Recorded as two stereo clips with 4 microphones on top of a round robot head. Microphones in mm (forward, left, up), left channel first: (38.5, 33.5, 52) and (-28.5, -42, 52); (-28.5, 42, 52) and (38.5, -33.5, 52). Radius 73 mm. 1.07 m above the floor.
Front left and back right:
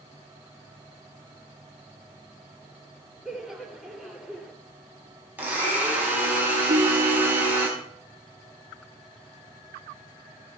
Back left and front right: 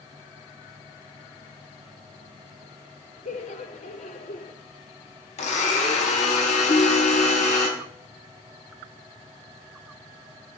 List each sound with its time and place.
3.2 s laughter: 140° left, 2.5 m
5.4 s a blender: 155° left, 4.5 m
6.7 s a ringtone: 170° right, 1.3 m